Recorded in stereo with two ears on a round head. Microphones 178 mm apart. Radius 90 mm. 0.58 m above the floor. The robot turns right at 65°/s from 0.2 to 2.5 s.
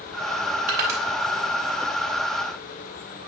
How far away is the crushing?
About 3 m.